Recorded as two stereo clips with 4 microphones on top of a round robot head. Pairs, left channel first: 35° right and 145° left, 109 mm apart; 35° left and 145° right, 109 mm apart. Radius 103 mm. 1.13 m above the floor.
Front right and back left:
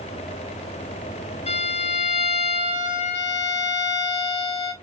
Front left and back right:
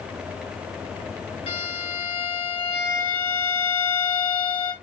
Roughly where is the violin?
Ahead.